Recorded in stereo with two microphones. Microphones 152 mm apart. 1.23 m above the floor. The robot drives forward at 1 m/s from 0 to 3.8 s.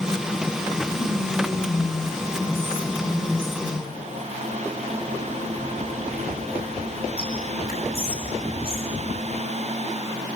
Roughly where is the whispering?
Left.